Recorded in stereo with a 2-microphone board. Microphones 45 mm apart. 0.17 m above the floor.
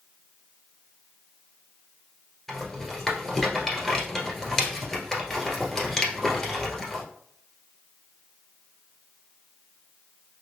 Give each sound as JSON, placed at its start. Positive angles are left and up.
{"t": 2.5, "sound": "a rattle", "side_deg": 10, "distance_m": 1.4}